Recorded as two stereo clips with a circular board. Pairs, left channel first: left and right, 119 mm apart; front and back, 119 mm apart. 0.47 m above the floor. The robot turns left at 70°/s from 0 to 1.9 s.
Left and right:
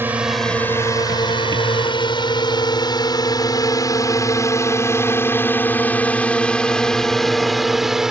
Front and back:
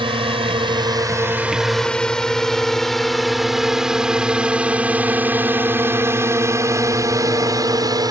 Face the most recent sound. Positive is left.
turn(degrees=-170)